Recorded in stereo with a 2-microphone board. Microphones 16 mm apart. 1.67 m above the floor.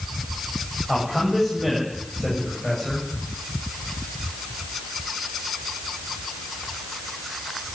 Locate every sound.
0.9 s a man speaking: 10° right (ahead or behind), 9 m; by 3.1 s 5° left (ahead or behind), 8.5 m